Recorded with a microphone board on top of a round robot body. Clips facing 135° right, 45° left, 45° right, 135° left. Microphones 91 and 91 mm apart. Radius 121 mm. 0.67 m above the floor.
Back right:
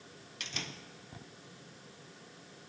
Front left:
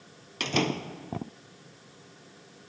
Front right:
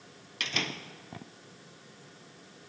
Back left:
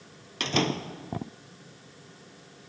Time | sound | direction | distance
0.4 | a door slam | 80° left | ?